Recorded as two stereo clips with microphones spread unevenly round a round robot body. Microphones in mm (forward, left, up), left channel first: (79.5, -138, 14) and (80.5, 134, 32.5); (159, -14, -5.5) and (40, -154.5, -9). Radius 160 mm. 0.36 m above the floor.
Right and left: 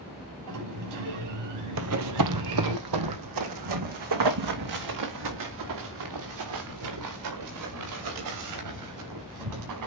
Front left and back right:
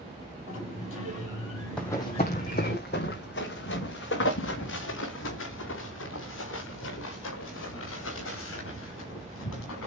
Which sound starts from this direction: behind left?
Running footsteps, at 1.8 s.